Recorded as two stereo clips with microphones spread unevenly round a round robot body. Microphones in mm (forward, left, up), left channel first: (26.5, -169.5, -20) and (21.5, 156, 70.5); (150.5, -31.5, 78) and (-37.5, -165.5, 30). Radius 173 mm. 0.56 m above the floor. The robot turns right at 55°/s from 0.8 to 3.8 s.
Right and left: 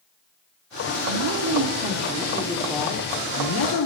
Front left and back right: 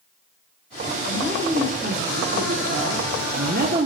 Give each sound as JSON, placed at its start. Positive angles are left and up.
{"t": 1.1, "sound": "a woman speaking", "azimuth_deg": 110, "distance_m": 1.3}